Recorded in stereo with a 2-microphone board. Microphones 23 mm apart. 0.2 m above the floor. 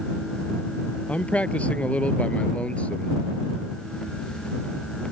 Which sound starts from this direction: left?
A man speaking, at 1.1 s.